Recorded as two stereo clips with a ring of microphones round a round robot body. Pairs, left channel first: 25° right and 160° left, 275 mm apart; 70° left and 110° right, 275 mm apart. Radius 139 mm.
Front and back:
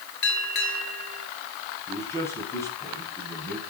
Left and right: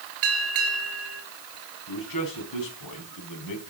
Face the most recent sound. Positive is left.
turn(degrees=60)